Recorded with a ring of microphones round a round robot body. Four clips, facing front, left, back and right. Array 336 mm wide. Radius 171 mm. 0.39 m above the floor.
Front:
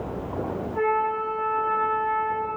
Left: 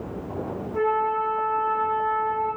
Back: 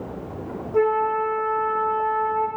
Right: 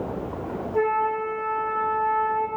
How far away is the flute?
About 6 m.